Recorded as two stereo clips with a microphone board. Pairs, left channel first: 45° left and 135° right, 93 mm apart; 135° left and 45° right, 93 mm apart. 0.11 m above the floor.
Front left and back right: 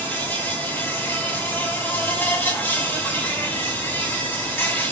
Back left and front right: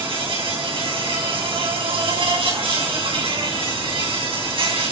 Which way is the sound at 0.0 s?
25° right.